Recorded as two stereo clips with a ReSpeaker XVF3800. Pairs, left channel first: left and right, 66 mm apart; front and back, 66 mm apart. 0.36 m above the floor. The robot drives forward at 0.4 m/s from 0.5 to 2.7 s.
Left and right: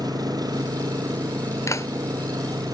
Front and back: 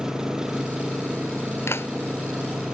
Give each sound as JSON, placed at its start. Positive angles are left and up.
{"t": 0.0, "sound": "an engine running", "azimuth_deg": -100}
{"t": 1.7, "sound": "a clap", "azimuth_deg": 50}